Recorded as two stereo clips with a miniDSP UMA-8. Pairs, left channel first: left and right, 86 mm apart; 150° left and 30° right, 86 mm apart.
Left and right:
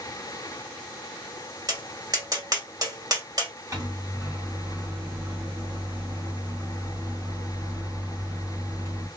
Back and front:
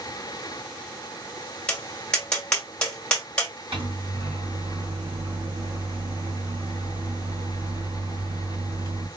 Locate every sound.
1.7 s tapping: 130° right, 1.7 m
3.7 s a microwave: 35° right, 2 m